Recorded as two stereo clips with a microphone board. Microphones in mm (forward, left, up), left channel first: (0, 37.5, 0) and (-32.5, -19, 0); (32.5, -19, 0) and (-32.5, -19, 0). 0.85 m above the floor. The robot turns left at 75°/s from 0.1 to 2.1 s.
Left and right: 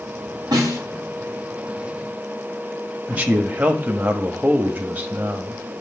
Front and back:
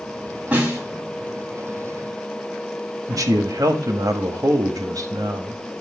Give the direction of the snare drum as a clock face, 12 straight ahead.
4 o'clock.